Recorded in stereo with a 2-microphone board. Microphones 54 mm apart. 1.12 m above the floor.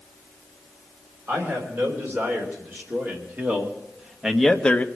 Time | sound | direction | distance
1.3 | a man speaking | 45° right (ahead or behind) | 5 m